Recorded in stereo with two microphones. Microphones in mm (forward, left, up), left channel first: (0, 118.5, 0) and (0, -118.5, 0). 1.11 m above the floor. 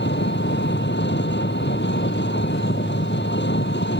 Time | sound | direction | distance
0.0 | an engine running | 50° left (ahead or behind) | ?